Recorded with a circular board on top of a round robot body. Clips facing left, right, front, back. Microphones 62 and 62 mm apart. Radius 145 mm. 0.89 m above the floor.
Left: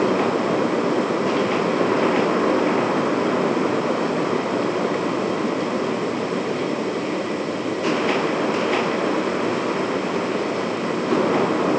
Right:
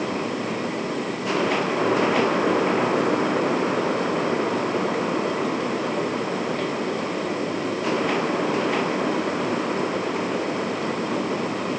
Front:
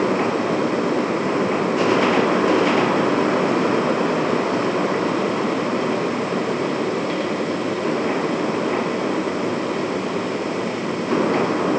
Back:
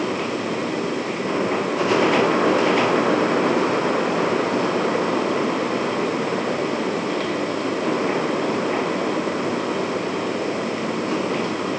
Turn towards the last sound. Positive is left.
No sound to turn to.